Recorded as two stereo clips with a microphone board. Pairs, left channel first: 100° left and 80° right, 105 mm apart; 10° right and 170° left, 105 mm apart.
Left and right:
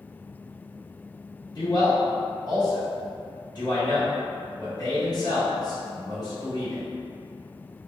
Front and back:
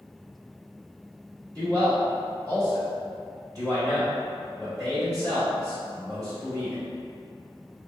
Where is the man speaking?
135° left, 1.9 m.